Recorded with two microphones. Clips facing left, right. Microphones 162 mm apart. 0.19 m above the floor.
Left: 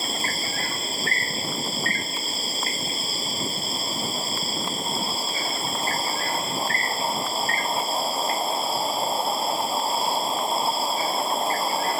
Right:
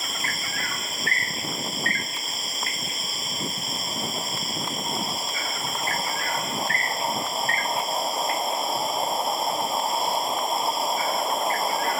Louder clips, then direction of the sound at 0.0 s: Left 4 dB; 30° left (ahead or behind).